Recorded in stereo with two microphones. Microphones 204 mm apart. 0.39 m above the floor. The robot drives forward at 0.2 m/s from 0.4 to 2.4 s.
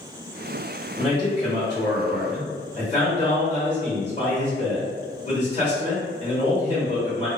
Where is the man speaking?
35° left (ahead or behind), 1.6 m.